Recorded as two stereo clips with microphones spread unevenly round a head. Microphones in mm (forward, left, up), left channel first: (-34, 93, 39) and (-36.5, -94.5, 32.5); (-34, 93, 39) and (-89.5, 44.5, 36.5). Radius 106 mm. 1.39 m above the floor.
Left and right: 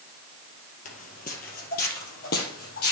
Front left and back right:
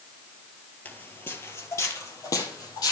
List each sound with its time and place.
0.8 s footsteps: 90° left, 1.7 m; by 2.9 s 50° left, 2.5 m